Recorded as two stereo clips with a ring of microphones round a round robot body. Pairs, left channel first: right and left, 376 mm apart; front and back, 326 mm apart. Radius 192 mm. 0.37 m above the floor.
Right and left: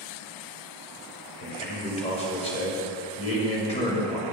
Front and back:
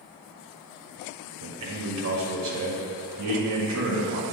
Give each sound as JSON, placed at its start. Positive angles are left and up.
{"t": 1.4, "sound": "a man speaking", "azimuth_deg": -160, "distance_m": 1.6}